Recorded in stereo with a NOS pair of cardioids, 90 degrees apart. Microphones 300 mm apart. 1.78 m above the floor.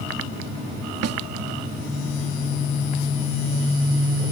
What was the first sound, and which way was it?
A snare drum, 65° right.